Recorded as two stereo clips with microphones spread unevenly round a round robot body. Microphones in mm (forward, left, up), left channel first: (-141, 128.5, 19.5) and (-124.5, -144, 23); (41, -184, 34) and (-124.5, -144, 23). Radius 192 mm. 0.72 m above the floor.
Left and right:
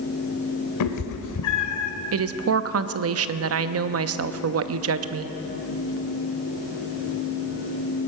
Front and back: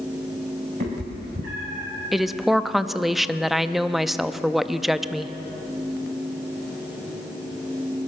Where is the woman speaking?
105° right, 0.7 m.